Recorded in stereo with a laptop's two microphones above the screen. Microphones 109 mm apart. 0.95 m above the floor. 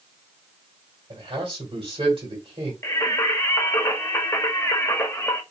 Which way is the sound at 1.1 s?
50° right (ahead or behind).